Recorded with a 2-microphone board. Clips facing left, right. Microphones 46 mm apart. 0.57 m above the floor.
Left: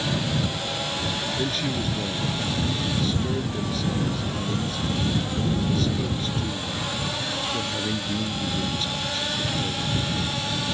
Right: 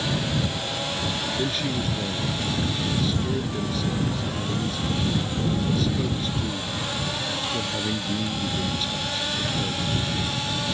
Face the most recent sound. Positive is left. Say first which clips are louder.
# right 1 dB
turn(degrees=0)  # may be behind; listen again after turning